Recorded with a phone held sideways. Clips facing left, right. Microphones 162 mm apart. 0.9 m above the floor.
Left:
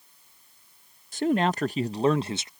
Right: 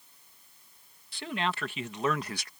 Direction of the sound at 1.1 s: 45° left (ahead or behind).